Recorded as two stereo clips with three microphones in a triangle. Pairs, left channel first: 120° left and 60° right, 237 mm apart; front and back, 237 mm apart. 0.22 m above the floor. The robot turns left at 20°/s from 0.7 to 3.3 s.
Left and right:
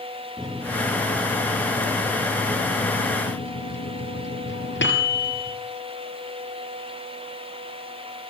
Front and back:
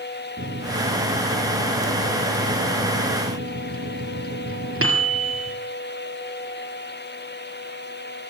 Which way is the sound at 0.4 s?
150° right.